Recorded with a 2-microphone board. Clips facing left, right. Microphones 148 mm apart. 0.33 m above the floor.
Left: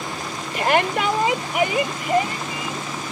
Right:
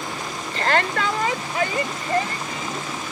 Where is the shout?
15° left (ahead or behind).